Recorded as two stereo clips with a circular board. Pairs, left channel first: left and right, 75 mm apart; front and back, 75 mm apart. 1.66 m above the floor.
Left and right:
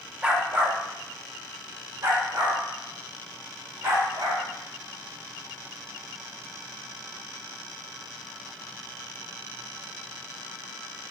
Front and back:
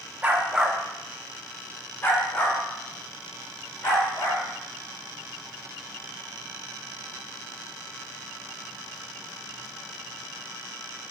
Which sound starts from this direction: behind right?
A dog barking, at 0.2 s.